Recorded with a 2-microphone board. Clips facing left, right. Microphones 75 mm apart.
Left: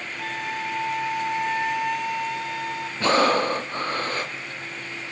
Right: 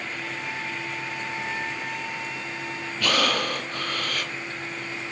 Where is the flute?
65° left (ahead or behind), 0.8 m.